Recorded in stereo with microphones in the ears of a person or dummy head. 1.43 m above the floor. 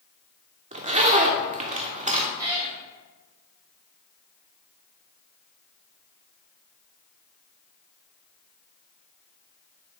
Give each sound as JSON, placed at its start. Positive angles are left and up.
{"t": 0.7, "sound": "a zipper", "side_deg": -35, "distance_m": 0.9}
{"t": 2.4, "sound": "a cat meowing", "side_deg": -20, "distance_m": 2.0}